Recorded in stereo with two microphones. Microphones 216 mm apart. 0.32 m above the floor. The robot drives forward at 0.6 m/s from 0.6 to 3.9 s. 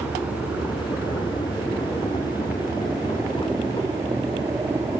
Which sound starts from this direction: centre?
A helicopter, at 0.0 s.